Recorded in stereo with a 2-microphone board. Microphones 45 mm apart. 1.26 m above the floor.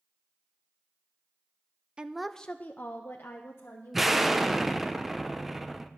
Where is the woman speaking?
20° right (ahead or behind), 0.5 m; by 4.8 s 60° left (ahead or behind), 2 m.